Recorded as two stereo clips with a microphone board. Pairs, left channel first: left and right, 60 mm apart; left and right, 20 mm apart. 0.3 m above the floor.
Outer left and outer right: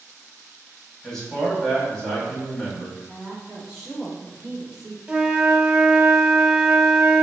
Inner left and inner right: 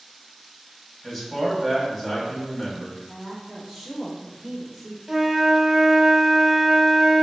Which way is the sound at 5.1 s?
15° right (ahead or behind).